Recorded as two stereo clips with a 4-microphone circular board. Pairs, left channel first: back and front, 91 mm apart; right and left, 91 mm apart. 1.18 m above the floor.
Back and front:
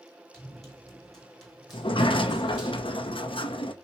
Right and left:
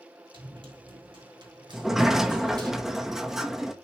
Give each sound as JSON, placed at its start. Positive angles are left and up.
{"t": 0.3, "sound": "running footsteps", "azimuth_deg": 95, "distance_m": 3.0}
{"t": 1.7, "sound": "a sliding door", "azimuth_deg": 175, "distance_m": 0.7}